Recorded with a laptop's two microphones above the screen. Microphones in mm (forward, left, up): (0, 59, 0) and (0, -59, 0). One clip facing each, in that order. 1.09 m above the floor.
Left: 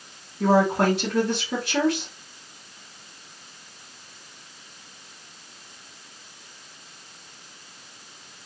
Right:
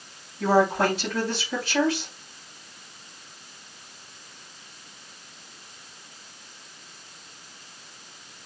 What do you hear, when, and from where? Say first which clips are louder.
0.4 s a woman speaking: left 1 dB; 70° left (ahead or behind), 4 m